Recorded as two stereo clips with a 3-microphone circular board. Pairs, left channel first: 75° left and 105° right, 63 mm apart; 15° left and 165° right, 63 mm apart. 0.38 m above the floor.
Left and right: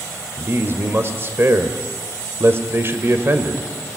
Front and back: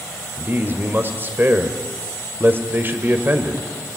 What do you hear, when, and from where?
0.4 s a man speaking: 130° right, 1.8 m